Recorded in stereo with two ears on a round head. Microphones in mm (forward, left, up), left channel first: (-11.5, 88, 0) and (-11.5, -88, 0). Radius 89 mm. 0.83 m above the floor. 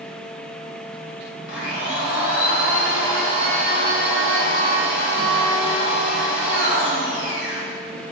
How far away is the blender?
About 2.5 m.